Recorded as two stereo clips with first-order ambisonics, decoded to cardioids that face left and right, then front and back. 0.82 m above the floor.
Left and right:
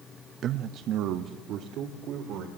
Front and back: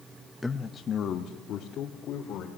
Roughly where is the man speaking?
Right.